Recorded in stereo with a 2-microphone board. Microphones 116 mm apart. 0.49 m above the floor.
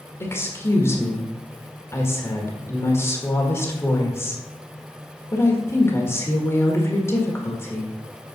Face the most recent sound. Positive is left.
turn(degrees=25)  # may be behind; listen again after turning